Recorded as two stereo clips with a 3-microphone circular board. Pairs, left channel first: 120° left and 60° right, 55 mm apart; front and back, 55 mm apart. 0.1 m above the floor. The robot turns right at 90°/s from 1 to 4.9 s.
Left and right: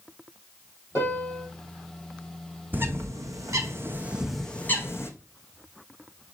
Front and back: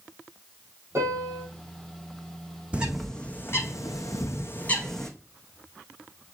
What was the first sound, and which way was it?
A piano, 150° left.